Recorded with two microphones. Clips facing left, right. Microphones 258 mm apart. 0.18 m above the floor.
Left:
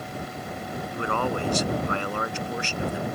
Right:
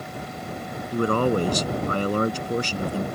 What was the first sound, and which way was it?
A man speaking, 40° right (ahead or behind).